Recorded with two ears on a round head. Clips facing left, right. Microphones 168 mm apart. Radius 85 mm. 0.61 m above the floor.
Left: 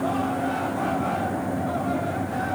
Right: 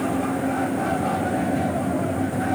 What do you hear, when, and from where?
Only background noise.